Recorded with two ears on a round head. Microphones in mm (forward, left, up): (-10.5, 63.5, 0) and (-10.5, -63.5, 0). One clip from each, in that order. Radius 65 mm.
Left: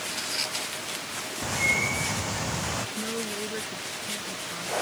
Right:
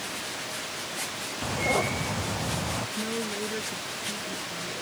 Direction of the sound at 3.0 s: 20° left (ahead or behind).